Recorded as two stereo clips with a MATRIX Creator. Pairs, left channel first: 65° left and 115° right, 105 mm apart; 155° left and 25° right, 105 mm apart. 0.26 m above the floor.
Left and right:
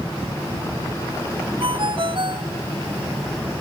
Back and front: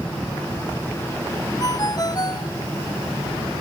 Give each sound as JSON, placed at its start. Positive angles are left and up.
{"t": 1.6, "sound": "a ringtone", "azimuth_deg": -150}